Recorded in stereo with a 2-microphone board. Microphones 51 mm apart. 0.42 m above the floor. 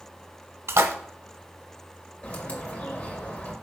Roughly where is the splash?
Right.